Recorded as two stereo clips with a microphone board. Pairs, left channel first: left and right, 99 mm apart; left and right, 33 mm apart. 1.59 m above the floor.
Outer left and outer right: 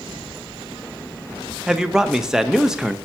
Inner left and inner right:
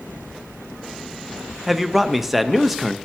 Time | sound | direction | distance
1.7 | a man speaking | 5° right (ahead or behind) | 0.6 m